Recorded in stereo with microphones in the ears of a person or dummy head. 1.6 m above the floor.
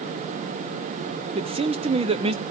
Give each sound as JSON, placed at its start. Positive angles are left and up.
{"t": 1.4, "sound": "a man speaking", "side_deg": -30, "distance_m": 0.8}